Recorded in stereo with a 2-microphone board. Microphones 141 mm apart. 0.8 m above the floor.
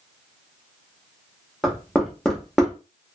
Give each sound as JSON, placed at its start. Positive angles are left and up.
{"t": 1.6, "sound": "knocking", "side_deg": 0, "distance_m": 1.0}